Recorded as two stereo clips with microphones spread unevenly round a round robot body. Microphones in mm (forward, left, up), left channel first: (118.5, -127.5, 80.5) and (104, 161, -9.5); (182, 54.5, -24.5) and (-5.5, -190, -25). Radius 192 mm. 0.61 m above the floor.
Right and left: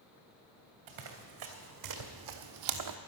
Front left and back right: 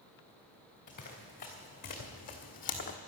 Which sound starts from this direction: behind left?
Running footsteps, at 0.9 s.